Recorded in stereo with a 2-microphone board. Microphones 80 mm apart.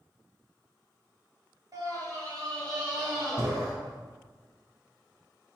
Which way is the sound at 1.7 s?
45° right (ahead or behind).